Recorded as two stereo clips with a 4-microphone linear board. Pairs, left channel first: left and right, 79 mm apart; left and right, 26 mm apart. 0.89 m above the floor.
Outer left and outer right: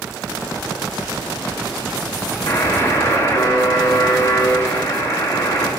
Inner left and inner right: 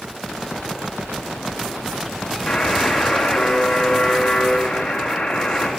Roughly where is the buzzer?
Left.